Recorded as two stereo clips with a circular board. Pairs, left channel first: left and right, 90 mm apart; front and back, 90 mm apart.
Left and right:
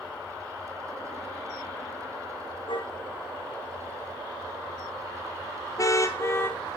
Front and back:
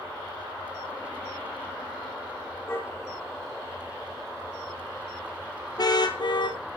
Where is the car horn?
65° left, 5.5 m; by 6.6 s 25° left, 2 m.